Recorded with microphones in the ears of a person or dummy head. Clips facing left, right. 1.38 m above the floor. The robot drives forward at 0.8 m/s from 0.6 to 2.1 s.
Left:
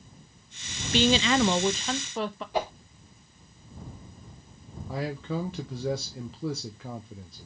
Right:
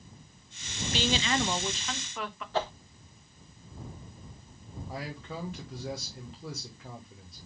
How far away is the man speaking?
About 1.2 m.